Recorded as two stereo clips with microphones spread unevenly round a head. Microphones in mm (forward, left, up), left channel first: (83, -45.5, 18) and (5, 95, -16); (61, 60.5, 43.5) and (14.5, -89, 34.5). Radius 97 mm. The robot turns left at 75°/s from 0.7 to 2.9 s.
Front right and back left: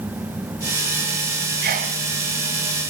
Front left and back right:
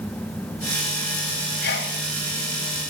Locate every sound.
1.6 s a sneeze: 100° left, 2.5 m; by 2.0 s 75° left, 2.5 m